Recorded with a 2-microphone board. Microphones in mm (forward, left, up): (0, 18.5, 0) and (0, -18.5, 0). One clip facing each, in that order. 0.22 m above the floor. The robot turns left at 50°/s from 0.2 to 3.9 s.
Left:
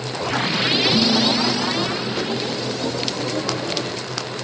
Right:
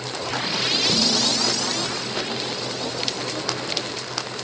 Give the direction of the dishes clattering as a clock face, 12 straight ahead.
3 o'clock.